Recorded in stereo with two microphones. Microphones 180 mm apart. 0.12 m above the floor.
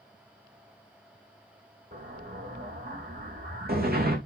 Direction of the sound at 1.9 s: 60° right (ahead or behind).